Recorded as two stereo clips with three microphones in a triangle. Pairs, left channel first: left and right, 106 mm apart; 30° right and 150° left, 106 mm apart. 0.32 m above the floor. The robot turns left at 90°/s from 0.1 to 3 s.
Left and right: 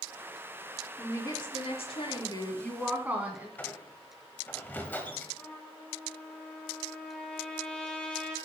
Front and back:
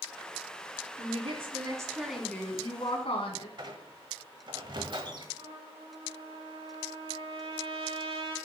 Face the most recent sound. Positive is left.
turn(degrees=170)